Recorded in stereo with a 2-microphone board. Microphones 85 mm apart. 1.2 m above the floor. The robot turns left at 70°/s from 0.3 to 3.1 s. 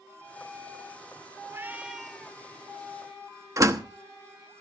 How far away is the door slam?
About 1.1 m.